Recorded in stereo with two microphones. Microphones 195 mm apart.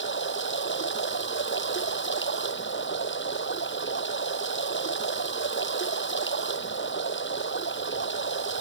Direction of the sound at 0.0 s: 75° left (ahead or behind).